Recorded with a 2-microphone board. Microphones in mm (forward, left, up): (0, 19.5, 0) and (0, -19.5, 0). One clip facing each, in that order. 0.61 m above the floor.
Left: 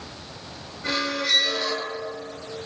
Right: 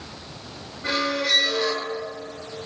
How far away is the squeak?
About 1.1 m.